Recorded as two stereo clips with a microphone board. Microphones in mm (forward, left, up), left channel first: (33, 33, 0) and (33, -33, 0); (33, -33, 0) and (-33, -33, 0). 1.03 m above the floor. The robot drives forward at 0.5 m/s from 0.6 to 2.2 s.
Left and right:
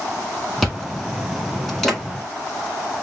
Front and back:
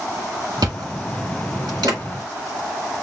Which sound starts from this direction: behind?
Chewing, at 0.6 s.